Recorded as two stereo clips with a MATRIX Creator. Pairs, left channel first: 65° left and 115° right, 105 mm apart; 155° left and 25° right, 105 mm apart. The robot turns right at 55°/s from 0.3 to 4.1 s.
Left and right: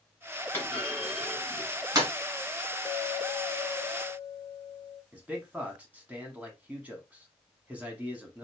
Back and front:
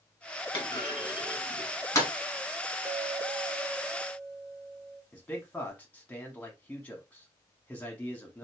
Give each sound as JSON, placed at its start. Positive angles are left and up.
{"t": 0.5, "sound": "a clunk", "azimuth_deg": 130, "distance_m": 2.0}
{"t": 2.9, "sound": "a clink", "azimuth_deg": 40, "distance_m": 0.8}
{"t": 5.1, "sound": "a man speaking", "azimuth_deg": -160, "distance_m": 1.1}